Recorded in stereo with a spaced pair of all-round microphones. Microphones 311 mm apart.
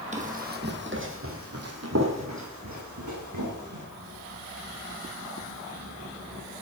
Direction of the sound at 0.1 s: 20° right (ahead or behind).